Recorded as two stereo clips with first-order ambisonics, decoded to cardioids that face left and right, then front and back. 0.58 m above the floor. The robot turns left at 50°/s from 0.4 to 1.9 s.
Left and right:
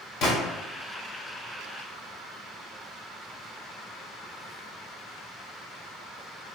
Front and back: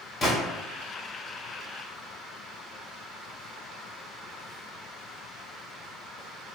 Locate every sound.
0.2 s a gunshot: 70° left, 1.8 m